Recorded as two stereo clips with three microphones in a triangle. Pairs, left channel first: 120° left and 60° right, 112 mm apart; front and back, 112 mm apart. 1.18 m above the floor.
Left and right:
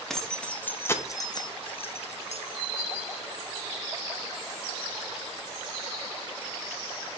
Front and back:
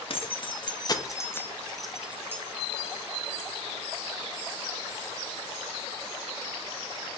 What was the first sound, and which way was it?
Keys jangling, 35° left.